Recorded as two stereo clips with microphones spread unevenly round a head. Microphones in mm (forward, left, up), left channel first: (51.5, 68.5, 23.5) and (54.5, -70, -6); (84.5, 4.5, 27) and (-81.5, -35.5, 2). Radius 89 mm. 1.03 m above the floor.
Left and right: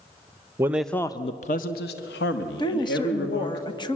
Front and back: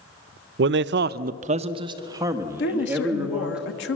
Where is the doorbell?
I don't hear a doorbell.